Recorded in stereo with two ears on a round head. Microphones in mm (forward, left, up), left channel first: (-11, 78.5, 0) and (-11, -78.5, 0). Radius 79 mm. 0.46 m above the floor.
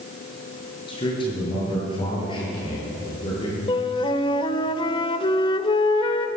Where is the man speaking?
30° left (ahead or behind), 8.5 m.